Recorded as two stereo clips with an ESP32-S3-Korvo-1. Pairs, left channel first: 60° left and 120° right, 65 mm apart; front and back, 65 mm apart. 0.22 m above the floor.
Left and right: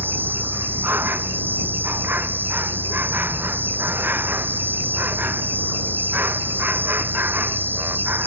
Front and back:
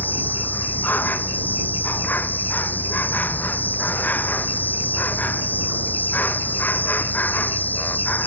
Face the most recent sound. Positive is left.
turn(degrees=-60)